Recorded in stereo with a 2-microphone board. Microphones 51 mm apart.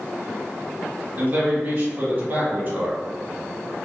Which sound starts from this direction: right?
A man speaking, at 1.2 s.